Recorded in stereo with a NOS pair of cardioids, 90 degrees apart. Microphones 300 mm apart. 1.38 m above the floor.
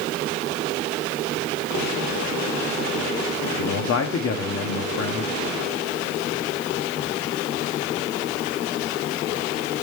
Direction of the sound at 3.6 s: 55° left.